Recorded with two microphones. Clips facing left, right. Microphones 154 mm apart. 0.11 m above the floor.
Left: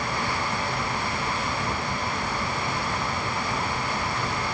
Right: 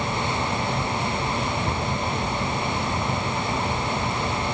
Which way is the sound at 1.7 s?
70° right (ahead or behind).